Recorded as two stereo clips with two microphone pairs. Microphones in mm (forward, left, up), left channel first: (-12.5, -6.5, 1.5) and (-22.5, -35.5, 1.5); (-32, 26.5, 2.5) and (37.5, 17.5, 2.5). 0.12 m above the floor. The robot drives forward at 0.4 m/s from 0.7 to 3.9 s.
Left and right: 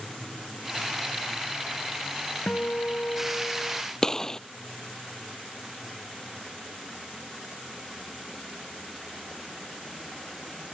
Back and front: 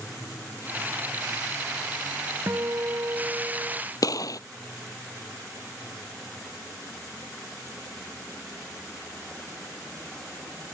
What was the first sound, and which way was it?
A guitar, 40° left.